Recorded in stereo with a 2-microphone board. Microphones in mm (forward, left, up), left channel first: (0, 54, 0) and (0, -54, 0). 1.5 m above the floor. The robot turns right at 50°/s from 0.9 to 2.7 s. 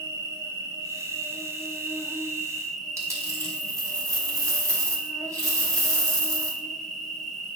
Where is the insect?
30° right (ahead or behind), 1.4 m; by 7.6 s centre (ahead or behind), 1.4 m.